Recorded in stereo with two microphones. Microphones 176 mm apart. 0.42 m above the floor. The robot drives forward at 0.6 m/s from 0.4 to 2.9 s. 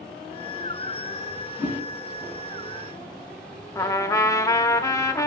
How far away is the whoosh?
About 3.5 m.